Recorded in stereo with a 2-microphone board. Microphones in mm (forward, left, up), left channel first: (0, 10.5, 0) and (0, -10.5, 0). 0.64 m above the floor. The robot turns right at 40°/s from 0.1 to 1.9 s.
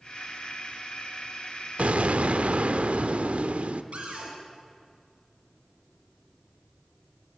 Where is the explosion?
65° right (ahead or behind), 1.0 m; by 3.8 s 70° right (ahead or behind), 1.0 m.